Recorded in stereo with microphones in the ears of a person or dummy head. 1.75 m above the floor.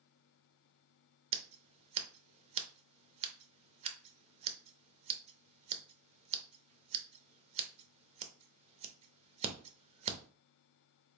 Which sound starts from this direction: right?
Scissors, at 1.3 s.